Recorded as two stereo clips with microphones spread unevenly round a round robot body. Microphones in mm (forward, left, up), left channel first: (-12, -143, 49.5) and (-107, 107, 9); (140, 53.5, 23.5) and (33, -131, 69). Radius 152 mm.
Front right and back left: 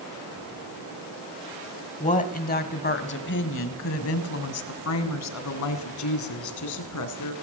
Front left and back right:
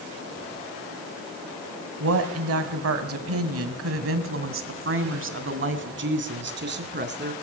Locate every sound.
2.0 s a woman speaking: 135° right, 2 m; by 7.3 s 80° right, 3.5 m